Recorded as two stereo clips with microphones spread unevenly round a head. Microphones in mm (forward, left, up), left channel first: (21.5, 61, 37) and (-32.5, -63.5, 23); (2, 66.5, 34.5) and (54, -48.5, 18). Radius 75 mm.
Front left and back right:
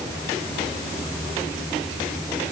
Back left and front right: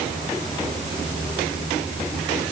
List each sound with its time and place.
Only background noise.